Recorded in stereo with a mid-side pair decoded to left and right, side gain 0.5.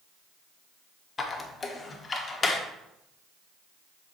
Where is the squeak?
35° left, 1.2 m.